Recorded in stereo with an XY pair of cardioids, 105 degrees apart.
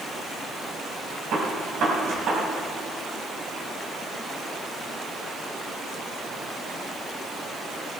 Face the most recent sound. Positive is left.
turn(degrees=-65)